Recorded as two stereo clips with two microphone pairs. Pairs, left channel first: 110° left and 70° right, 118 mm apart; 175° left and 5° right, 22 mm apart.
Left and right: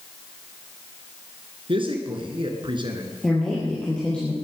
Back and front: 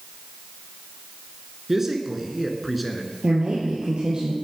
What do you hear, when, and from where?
1.7 s a man speaking: 70° right, 2.5 m; by 3.1 s 95° right, 2.5 m
3.2 s a woman speaking: 30° left, 3.5 m